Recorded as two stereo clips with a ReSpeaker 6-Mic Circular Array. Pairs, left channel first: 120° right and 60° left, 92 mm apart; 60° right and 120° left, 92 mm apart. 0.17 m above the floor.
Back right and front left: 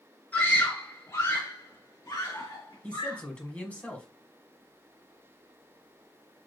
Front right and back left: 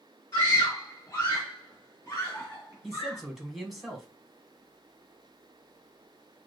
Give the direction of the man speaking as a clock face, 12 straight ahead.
5 o'clock.